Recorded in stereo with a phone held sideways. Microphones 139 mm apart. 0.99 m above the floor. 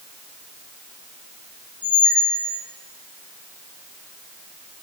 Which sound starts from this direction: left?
A squeak, at 1.8 s.